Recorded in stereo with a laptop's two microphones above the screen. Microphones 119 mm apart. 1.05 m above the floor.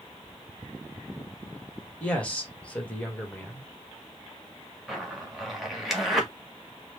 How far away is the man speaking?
About 1.3 m.